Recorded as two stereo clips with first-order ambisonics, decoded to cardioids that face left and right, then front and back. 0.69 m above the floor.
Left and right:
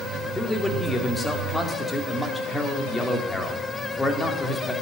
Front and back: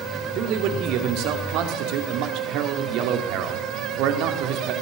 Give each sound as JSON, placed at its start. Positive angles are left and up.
{"t": 0.3, "sound": "a man speaking", "azimuth_deg": 170, "distance_m": 2.0}